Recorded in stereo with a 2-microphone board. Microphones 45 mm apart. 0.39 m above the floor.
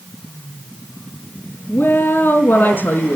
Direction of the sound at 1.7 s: 45° left (ahead or behind).